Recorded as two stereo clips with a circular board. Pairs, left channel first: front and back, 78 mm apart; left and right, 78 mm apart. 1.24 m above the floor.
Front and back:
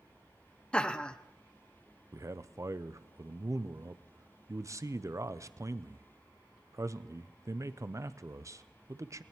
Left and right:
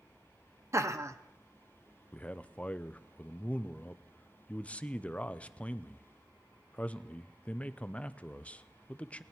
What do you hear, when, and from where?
0.7 s laughter: 70° right, 0.7 m
2.1 s a man speaking: 155° left, 0.5 m